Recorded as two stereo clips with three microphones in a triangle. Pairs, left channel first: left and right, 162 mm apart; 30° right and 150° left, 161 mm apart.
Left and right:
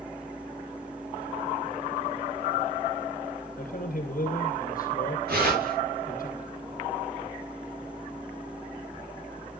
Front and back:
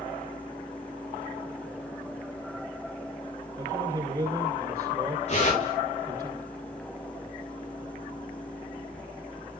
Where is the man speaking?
105° left, 2.5 m.